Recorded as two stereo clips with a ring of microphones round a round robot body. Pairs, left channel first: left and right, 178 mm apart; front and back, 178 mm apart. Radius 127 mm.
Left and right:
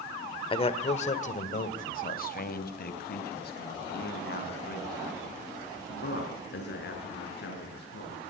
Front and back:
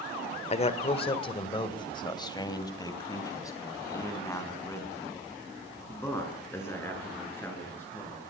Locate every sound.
0.5 s a man speaking: 40° left, 1.6 m; by 8.3 s 80° left, 7.5 m